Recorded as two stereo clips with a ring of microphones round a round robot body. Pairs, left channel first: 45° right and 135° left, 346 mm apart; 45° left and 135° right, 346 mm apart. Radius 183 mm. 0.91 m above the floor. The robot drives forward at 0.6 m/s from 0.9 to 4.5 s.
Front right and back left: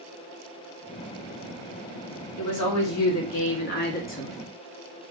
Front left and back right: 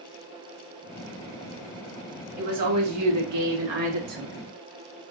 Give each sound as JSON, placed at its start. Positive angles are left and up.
{"t": 2.4, "sound": "a woman speaking", "azimuth_deg": -80, "distance_m": 2.0}